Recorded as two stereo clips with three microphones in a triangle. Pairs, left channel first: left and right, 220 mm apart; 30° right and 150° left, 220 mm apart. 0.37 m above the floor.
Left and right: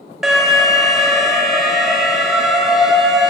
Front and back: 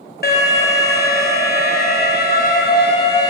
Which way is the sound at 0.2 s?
5° right.